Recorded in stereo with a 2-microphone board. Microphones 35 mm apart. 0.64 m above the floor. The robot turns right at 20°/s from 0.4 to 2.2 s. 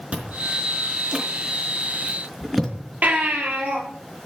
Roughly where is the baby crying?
Right.